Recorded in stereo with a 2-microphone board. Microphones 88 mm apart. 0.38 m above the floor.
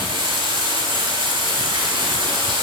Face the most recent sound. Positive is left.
turn(degrees=-65)  # may be behind; listen again after turning